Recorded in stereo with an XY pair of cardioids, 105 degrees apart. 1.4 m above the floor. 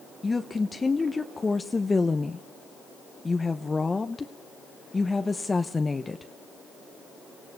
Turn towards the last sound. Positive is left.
turn(degrees=20)